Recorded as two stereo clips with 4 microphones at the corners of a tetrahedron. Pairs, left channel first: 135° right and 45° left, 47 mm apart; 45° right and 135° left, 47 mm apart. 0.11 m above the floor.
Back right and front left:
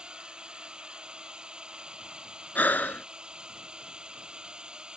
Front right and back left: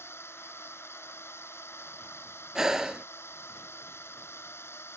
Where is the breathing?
155° right.